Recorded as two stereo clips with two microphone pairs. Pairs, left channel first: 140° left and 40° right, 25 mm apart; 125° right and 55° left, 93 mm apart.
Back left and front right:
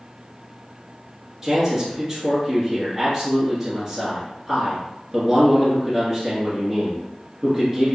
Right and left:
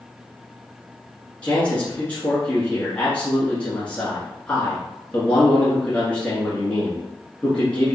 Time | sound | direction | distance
1.4 | a man speaking | 70° right | 1.4 m